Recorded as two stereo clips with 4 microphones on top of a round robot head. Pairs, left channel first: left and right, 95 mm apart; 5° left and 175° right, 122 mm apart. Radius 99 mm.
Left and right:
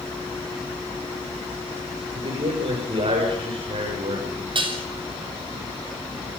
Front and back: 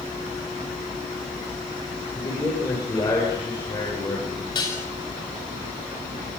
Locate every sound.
2.1 s a man speaking: 65° right, 7 m
4.5 s dishes clattering: 60° right, 6 m